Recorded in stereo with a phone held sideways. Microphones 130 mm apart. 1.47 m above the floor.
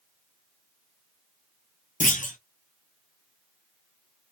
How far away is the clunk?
About 1.0 m.